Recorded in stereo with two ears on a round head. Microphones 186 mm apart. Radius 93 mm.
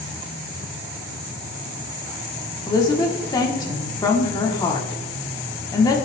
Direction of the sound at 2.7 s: 20° left (ahead or behind).